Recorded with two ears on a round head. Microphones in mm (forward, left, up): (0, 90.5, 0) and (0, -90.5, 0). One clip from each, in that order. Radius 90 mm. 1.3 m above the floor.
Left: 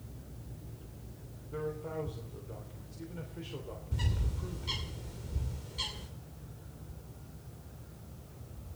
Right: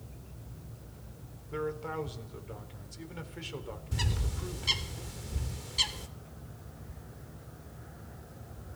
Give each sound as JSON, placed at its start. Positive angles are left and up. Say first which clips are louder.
{"t": 1.5, "sound": "a man speaking", "louder": "right 3 dB", "side_deg": -55, "distance_m": 3.5}
{"t": 3.9, "sound": "a bird", "louder": "right 6 dB", "side_deg": -55, "distance_m": 2.5}